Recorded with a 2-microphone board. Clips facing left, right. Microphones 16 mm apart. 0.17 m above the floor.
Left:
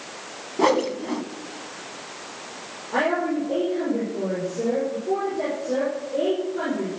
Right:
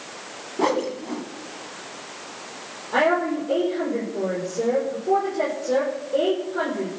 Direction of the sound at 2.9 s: 70° right (ahead or behind).